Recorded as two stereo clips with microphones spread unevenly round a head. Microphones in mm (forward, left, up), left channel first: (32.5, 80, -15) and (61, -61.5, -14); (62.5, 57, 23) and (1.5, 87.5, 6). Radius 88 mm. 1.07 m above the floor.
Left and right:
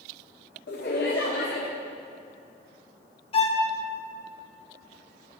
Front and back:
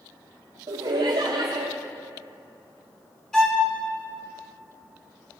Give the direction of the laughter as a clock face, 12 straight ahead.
7 o'clock.